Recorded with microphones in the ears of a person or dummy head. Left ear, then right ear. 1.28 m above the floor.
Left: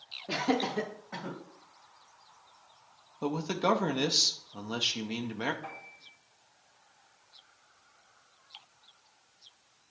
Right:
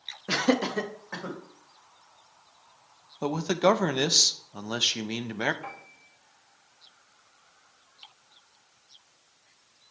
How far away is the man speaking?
About 0.6 m.